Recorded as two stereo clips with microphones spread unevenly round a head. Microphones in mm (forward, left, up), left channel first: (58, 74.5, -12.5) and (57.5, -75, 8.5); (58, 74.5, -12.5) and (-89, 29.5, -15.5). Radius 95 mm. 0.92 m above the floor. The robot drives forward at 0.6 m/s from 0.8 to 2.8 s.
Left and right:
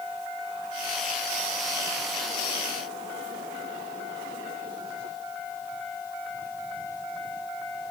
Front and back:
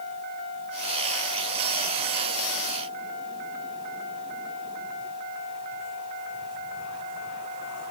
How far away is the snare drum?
No snare drum in this recording.